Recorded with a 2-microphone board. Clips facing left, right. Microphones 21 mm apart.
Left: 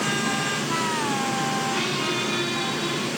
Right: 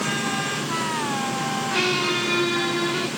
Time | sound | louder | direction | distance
1.7 | a squeak | right 3 dB | 45° right (ahead or behind) | 4 m